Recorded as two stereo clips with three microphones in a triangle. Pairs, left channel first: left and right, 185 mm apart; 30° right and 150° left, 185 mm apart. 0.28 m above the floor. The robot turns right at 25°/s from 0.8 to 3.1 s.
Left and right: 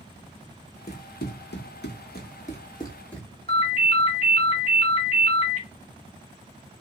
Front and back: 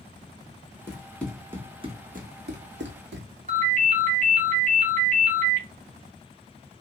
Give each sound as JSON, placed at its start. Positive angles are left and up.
{"t": 0.9, "sound": "running footsteps", "azimuth_deg": 35, "distance_m": 1.1}
{"t": 3.5, "sound": "a ringtone", "azimuth_deg": 130, "distance_m": 1.3}